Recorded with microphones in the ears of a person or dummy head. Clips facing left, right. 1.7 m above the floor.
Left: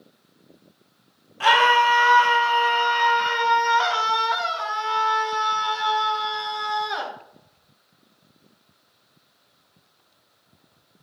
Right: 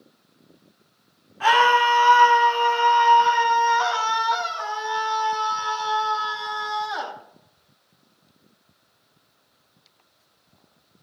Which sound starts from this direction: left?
A scream, at 1.4 s.